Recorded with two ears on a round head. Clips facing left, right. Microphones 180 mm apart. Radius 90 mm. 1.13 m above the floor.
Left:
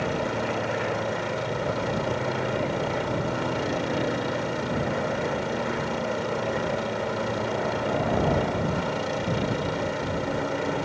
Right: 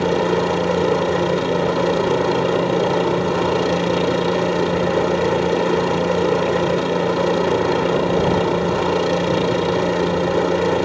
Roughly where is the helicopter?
Right.